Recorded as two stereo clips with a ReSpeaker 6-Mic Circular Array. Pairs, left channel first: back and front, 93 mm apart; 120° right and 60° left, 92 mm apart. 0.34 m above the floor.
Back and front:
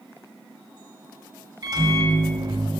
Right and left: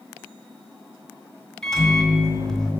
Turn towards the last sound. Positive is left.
turn(degrees=-35)